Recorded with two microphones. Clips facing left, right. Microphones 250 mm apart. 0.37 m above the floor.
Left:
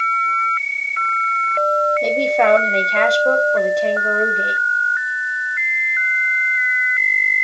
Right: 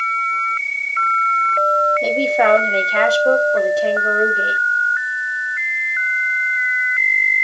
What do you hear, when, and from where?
2.0 s a man speaking: 5° right (ahead or behind), 1.6 m